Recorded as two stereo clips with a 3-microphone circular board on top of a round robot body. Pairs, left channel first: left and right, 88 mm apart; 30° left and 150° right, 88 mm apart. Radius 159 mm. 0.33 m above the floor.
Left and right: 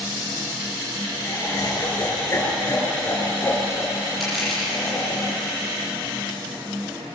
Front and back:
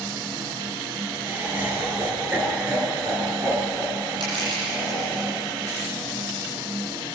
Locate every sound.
1.2 s laughter: 145° left, 9 m; by 5.2 s 160° left, 7.5 m
4.2 s crushing: straight behind, 9.5 m